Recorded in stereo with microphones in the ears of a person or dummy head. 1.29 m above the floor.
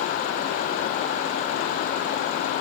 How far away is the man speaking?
No man speaking in this recording.